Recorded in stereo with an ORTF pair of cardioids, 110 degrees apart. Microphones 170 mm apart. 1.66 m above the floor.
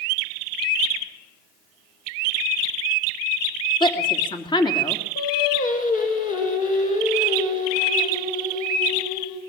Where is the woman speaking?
30° left, 3 m.